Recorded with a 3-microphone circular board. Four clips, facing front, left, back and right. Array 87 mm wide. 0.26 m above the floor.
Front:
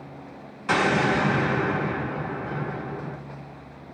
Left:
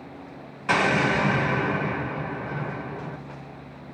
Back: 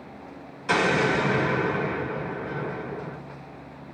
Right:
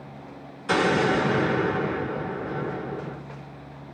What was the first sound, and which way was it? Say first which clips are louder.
An explosion: right 1 dB, front 1 dB; 70° left.